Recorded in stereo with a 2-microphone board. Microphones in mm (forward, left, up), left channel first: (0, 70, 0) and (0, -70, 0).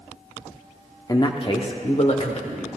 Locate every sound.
1.1 s a man speaking: 25° left (ahead or behind), 0.8 m; by 2.7 s 55° left (ahead or behind), 1.9 m